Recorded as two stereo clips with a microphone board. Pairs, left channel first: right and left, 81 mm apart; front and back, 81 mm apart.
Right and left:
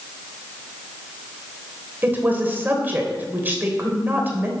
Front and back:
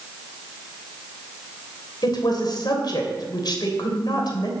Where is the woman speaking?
25° left, 3 m.